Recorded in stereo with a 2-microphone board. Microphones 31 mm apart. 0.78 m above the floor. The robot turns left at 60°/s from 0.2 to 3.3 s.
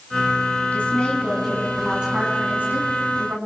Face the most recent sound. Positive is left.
turn(degrees=-100)